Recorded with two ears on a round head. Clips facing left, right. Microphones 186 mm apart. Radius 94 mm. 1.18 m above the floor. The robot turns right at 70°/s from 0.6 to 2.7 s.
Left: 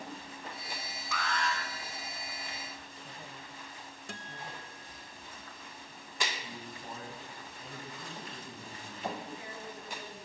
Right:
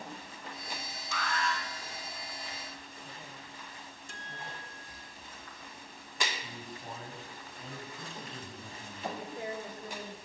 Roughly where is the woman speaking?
Right.